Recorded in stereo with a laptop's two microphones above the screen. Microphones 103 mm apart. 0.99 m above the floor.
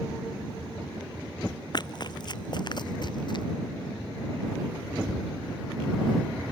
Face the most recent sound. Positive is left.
turn(degrees=50)  # may be behind; listen again after turning